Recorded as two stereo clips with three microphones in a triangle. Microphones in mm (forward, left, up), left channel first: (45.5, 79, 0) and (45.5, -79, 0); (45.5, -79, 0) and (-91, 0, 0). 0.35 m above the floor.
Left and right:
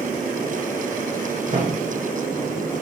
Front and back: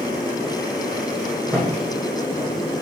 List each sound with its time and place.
1.5 s a thud: 130° right, 4 m